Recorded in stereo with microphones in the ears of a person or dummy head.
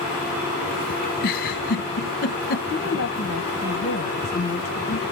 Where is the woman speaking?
50° left (ahead or behind), 0.9 m.